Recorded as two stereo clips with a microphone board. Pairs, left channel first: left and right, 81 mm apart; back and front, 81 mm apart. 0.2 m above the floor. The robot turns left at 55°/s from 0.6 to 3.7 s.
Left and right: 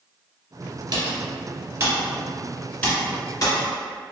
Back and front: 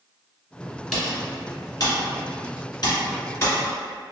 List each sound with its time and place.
0.9 s typing on a keyboard: 95° right, 1.2 m; by 3.7 s 115° left, 1.2 m